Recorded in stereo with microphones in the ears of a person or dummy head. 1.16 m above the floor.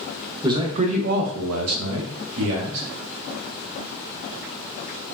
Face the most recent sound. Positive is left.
turn(degrees=-60)  # may be behind; listen again after turning